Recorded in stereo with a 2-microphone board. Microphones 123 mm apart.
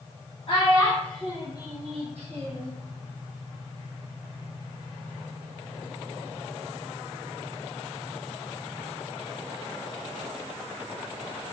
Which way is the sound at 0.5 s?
40° left (ahead or behind).